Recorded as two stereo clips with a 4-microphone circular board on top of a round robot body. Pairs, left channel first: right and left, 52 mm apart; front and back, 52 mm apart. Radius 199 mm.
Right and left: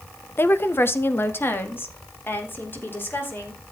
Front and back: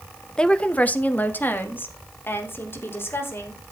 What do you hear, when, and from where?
0.4 s a woman speaking: 70° right, 1.3 m; by 3.6 s 40° right, 4.5 m